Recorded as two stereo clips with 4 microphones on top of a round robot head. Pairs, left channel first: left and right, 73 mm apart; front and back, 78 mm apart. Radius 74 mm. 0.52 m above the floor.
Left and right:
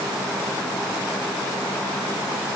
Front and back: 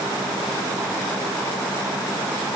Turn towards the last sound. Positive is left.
No sound to turn to.